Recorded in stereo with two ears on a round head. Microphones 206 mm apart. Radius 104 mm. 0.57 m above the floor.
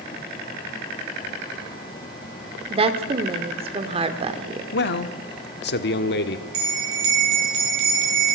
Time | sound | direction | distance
2.7 | a woman speaking | 25° right (ahead or behind) | 1.9 m
4.7 | a man speaking | 50° left (ahead or behind) | 1.2 m
6.5 | a bell | 65° right (ahead or behind) | 5 m